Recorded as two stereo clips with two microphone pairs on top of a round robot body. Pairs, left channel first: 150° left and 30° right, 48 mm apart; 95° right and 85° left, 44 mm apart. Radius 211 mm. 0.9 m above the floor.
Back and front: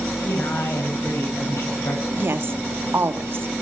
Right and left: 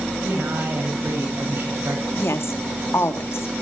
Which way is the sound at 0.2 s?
125° left.